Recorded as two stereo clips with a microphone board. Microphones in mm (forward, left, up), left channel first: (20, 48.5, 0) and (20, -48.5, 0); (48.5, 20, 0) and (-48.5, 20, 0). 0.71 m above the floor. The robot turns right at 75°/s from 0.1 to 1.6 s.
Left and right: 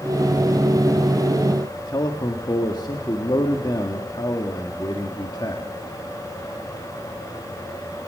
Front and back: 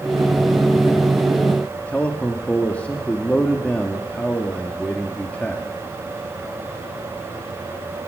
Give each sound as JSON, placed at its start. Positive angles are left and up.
{"t": 1.8, "sound": "a man speaking", "azimuth_deg": 70, "distance_m": 1.6}